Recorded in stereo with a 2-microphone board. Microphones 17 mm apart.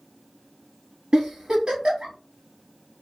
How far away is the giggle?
About 1.5 m.